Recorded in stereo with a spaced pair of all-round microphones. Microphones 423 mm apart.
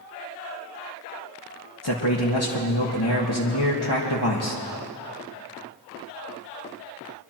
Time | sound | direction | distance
1.8 | a man speaking | 65° left (ahead or behind) | 1.4 m